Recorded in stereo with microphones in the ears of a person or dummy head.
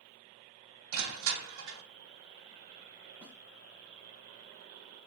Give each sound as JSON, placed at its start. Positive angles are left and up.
{"t": 0.9, "sound": "crushing", "side_deg": -75, "distance_m": 2.0}
{"t": 3.2, "sound": "a snare drum", "side_deg": -10, "distance_m": 2.5}